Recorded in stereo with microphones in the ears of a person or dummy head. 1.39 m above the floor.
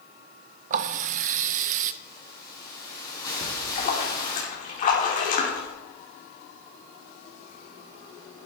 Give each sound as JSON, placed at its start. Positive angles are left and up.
{"t": 0.7, "sound": "a running tap", "side_deg": -40, "distance_m": 0.5}
{"t": 2.0, "sound": "a hiss", "side_deg": 20, "distance_m": 7.5}
{"t": 3.4, "sound": "a splash", "side_deg": 45, "distance_m": 3.5}